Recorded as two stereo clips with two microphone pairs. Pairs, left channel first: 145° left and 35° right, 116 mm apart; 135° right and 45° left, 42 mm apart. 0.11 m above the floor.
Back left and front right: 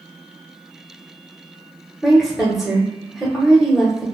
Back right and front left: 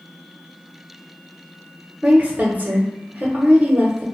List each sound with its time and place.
2.0 s a woman speaking: 50° left, 1.2 m